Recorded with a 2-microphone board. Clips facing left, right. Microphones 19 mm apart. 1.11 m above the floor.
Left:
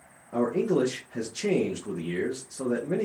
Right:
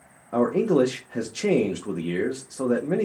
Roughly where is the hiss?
No hiss in this recording.